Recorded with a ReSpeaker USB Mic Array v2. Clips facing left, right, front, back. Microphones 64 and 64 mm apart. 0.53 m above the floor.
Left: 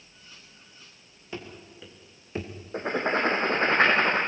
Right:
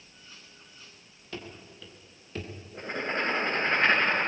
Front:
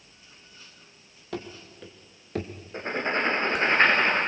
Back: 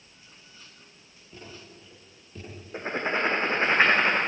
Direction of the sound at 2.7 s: 95° left.